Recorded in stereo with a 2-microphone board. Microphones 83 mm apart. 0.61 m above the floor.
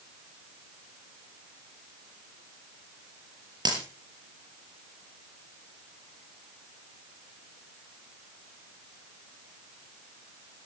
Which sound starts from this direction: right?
A dropped coin, at 3.6 s.